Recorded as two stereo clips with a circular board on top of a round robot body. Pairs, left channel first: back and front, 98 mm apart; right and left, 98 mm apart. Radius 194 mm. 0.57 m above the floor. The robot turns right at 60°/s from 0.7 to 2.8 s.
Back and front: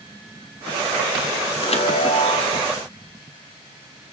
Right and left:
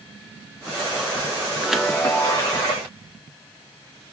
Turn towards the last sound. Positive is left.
turn(degrees=-120)